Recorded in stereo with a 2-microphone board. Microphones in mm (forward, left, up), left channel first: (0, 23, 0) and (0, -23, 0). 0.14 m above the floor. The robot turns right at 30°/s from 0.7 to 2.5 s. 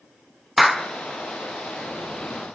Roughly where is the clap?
Centre.